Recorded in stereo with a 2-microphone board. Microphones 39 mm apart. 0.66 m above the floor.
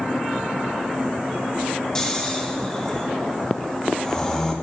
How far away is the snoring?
About 1.1 m.